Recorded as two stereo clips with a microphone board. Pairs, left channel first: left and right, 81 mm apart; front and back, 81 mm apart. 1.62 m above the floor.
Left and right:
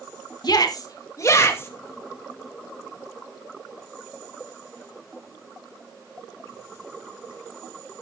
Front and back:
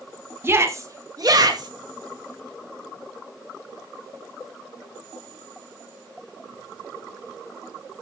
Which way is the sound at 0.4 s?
120° left.